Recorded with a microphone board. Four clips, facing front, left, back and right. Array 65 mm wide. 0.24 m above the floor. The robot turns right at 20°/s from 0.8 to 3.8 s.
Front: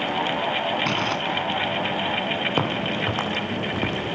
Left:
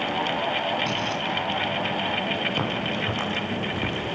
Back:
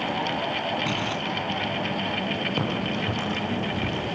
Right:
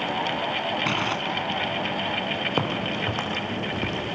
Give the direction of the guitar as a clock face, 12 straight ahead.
No guitar in this recording.